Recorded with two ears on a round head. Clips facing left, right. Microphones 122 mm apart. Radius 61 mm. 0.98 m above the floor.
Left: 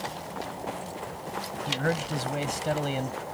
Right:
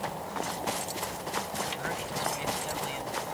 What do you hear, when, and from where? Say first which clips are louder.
1.7 s a man speaking: left 6 dB; 55° left (ahead or behind)